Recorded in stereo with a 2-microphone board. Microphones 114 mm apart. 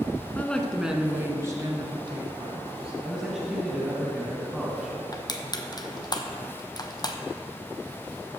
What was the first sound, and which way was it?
A woman speaking, 15° left (ahead or behind).